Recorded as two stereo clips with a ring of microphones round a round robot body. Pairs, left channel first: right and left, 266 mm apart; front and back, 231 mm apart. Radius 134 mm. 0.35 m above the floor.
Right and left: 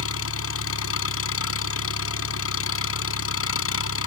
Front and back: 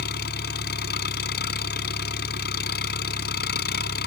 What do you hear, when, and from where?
0.0 s an engine running: 55° right